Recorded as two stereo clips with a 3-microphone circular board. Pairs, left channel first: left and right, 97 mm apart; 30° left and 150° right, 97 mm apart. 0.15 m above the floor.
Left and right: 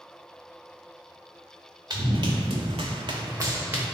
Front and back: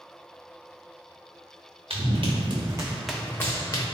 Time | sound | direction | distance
1.9 | running footsteps | 135° right | 1.0 m